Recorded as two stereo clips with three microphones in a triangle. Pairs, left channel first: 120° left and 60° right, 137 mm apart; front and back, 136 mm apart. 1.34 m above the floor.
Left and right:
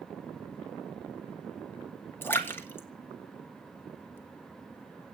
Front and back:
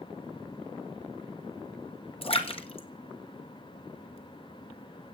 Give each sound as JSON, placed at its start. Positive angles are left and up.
{"t": 2.2, "sound": "a splash", "azimuth_deg": 45, "distance_m": 2.0}